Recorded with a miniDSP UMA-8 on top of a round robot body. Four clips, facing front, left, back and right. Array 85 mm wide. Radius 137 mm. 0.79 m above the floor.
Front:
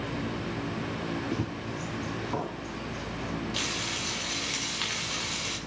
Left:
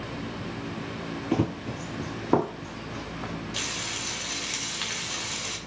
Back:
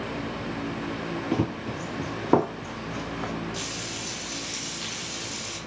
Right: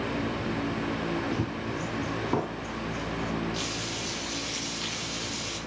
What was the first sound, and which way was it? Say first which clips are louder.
Running footsteps: left 3 dB, back 5 dB; 130° left.